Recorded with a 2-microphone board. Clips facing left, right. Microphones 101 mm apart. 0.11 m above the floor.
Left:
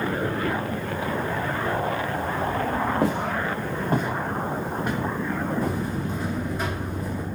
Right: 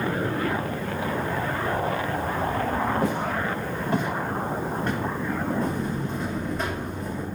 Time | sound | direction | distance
3.0 | footsteps | 75° left (ahead or behind) | 1.6 m
5.6 | a buzzer | 5° left (ahead or behind) | 1.4 m